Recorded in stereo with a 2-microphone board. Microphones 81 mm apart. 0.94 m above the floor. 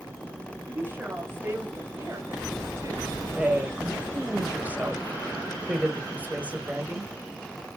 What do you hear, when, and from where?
0.7 s a woman speaking: 25° right (ahead or behind), 5.5 m; by 3.1 s 35° right (ahead or behind), 4 m
3.3 s a woman speaking: 20° right (ahead or behind), 4 m